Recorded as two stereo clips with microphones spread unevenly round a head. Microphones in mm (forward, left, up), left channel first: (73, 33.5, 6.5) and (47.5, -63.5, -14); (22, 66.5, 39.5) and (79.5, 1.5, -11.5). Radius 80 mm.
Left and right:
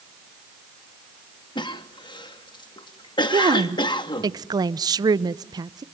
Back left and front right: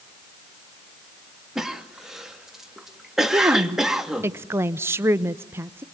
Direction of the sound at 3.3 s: 75° right.